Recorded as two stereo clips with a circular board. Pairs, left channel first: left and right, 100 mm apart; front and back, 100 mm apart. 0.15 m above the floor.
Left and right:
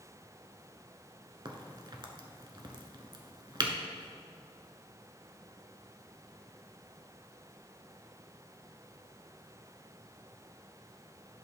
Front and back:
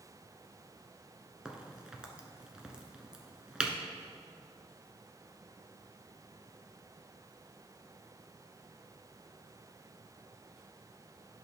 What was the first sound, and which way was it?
A crack, 100° right.